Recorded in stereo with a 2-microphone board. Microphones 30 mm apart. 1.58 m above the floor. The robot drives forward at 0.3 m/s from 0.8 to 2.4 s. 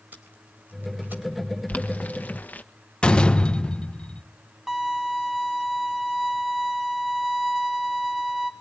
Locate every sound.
0.1 s tape being pulled: 75° right (ahead or behind), 4 m
1.7 s boiling: 55° left (ahead or behind), 1.4 m; by 2.6 s 60° left (ahead or behind), 1.3 m
3.0 s a door slam: 30° left (ahead or behind), 0.8 m
4.7 s a violin: 10° right (ahead or behind), 3 m